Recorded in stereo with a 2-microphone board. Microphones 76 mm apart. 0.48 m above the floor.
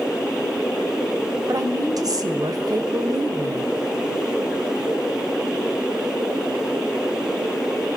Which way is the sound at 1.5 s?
55° right (ahead or behind).